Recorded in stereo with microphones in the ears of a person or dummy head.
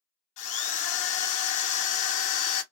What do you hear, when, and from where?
0.4 s a drill: 35° left (ahead or behind), 0.8 m